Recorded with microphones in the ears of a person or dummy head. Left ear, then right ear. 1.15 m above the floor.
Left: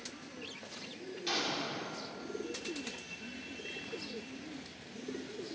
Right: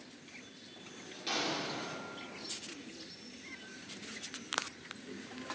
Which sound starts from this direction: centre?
An explosion, at 1.3 s.